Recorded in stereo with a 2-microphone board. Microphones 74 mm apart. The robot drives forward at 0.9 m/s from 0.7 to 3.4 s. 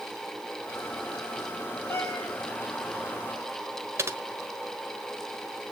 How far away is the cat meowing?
About 3.5 m.